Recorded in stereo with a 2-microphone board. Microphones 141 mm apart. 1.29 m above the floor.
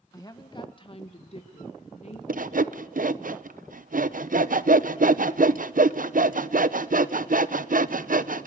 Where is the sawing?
75° right (ahead or behind), 0.6 m.